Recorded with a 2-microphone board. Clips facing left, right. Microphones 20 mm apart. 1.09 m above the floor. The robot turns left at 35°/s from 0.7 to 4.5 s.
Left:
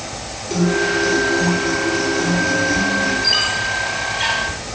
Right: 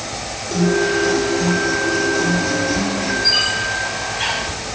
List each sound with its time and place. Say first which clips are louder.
0.5 s a guitar: even; 40° left, 1.4 m; by 3.1 s 45° right, 1.4 m
3.2 s a squeak: right 1 dB; 20° left (ahead or behind), 1.6 m; by 4.4 s 10° right (ahead or behind), 1.6 m